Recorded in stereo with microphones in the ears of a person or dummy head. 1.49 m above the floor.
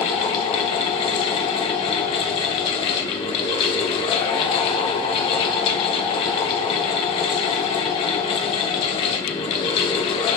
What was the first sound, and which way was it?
A fan, 30° left (ahead or behind).